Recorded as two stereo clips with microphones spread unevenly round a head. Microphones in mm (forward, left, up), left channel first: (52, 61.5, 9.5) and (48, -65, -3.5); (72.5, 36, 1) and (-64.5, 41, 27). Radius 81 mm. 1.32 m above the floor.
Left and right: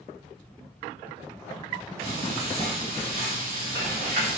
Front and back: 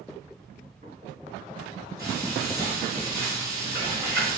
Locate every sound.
2.0 s frying: 110° right, 1.7 m